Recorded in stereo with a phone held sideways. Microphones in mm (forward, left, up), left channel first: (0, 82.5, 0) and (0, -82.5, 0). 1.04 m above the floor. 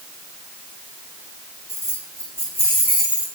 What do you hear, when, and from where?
1.7 s keys jangling: 20° right (ahead or behind), 5 m; by 3.3 s 5° right (ahead or behind), 4.5 m